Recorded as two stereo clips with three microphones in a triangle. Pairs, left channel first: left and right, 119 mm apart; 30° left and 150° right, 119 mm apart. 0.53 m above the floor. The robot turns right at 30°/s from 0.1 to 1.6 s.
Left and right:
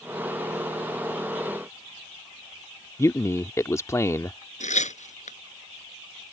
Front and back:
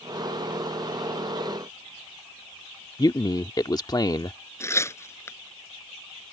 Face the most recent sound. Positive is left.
turn(degrees=100)